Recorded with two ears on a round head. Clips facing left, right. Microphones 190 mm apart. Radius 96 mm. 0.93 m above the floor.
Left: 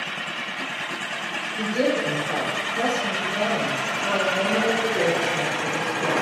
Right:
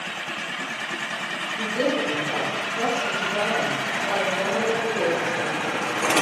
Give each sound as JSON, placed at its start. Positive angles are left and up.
{"t": 1.6, "sound": "a woman speaking", "side_deg": 40, "distance_m": 3.0}